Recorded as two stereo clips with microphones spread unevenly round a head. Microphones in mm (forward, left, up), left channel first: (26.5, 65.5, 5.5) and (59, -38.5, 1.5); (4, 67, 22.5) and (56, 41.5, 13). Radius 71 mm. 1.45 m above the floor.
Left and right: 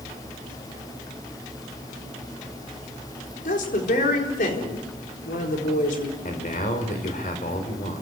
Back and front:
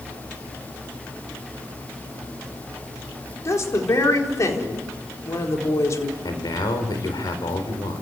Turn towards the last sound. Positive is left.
turn(degrees=150)